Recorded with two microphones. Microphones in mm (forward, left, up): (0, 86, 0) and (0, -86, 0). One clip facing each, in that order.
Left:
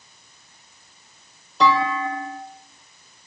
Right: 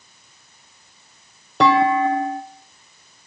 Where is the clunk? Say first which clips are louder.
Right 5 dB; 80° right, 0.9 m.